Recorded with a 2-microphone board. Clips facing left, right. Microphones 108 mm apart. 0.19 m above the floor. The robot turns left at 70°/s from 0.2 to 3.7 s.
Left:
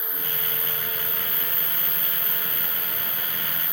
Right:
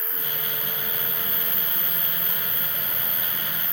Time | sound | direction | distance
0.0 | an insect | 65° right | 0.9 m